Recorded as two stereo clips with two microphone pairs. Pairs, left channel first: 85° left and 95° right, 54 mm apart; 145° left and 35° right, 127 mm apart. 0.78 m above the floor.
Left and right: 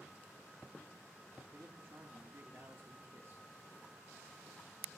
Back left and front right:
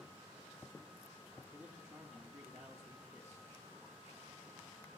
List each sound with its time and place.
1.5 s a man speaking: 100° right, 0.8 m